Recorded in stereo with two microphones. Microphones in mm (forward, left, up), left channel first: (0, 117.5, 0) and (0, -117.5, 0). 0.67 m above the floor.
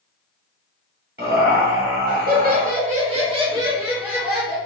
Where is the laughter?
45° right (ahead or behind), 1.3 m; by 4.7 s 5° left (ahead or behind), 1.1 m.